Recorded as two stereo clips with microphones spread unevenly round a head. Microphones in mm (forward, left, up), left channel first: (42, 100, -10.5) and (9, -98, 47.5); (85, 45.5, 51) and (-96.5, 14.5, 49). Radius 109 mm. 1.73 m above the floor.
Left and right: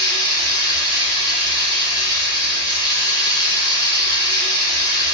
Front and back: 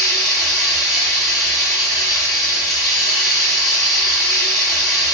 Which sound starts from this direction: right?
Running water, at 0.0 s.